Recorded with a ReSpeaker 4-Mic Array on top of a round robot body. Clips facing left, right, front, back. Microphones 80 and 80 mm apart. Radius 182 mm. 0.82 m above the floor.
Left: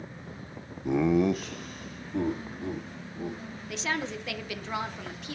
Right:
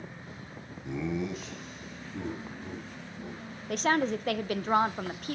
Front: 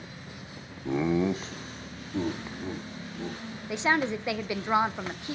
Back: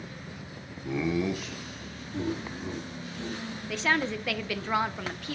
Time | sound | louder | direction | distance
0.8 | laughter | left 9 dB, front 3 dB | 60° left | 0.7 m
3.7 | a woman speaking | right 6 dB, front 2 dB | 65° right | 0.7 m